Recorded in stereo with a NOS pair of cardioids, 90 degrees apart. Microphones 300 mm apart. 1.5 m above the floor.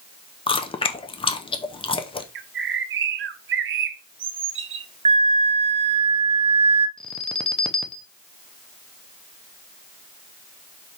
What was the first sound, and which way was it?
Chewing, 20° left.